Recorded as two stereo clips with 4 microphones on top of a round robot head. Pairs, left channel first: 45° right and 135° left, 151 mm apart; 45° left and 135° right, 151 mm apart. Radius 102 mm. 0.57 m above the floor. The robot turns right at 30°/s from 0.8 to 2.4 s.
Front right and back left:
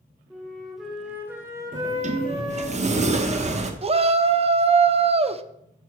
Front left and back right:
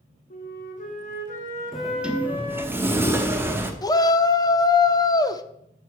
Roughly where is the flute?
Ahead left.